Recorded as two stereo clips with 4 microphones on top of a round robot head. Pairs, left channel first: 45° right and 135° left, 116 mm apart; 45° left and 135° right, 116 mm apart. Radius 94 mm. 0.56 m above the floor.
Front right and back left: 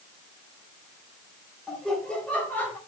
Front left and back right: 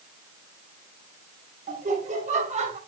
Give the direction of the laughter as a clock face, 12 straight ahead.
4 o'clock.